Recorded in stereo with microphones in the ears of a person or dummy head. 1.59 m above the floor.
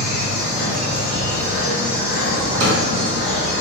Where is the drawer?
60° right (ahead or behind), 1.7 m.